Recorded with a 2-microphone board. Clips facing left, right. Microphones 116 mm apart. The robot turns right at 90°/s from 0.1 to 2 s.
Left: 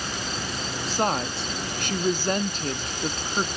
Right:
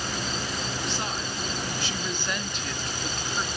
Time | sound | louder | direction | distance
0.8 | a woman speaking | left 7 dB | 35° left | 1.0 m